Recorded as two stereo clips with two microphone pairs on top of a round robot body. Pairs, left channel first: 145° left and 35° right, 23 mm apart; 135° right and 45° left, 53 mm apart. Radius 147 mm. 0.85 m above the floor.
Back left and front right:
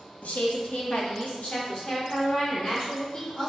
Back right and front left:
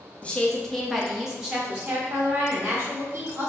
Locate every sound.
0.2 s a woman speaking: 150° left, 0.8 m; by 3.5 s 95° left, 2.5 m